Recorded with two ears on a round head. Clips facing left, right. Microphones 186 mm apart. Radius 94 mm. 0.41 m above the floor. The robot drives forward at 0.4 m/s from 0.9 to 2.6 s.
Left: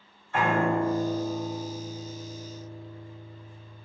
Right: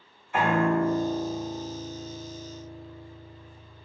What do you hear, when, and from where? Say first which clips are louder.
0.3 s a piano: right 1 dB; 15° right (ahead or behind), 1.5 m; by 3.9 s 10° right (ahead or behind), 2 m